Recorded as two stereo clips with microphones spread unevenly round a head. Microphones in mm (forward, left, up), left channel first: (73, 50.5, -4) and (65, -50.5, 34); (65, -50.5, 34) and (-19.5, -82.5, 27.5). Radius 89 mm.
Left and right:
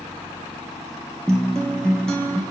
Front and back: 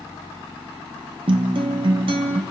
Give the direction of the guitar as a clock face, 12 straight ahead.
6 o'clock.